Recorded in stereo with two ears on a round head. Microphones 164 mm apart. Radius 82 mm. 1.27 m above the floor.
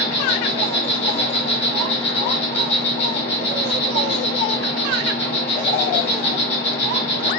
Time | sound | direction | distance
0.0 | an insect | 30° left (ahead or behind) | 1.0 m